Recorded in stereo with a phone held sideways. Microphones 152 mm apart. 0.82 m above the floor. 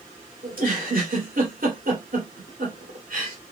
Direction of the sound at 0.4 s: 65° right (ahead or behind).